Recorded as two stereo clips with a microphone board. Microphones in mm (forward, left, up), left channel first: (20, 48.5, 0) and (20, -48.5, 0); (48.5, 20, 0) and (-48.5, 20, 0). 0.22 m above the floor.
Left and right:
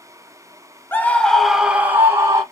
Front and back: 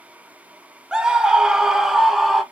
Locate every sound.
0.9 s a scream: 115° left, 1.0 m; by 2.4 s 100° right, 1.1 m